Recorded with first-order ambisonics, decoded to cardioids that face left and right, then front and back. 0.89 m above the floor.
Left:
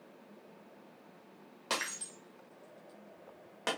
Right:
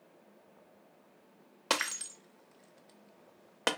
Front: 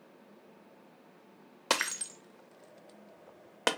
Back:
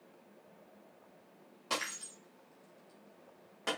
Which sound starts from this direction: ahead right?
Breaking glass, at 1.7 s.